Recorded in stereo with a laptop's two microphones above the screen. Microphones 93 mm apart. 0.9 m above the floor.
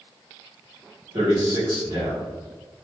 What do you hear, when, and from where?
1.1 s a man speaking: 45° right (ahead or behind), 1.4 m